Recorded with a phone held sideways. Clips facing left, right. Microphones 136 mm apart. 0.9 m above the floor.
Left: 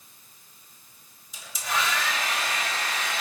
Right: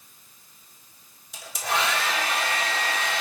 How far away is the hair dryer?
About 2 m.